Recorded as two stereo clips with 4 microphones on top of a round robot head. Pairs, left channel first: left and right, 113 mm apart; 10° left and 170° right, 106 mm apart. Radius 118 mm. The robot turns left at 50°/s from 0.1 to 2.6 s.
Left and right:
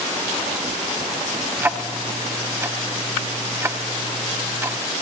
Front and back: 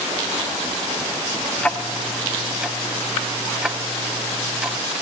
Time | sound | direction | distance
1.6 | ticking | 50° right | 0.7 m